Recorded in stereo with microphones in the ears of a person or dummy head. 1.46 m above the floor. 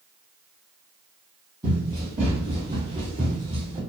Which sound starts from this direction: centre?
Running footsteps, at 1.6 s.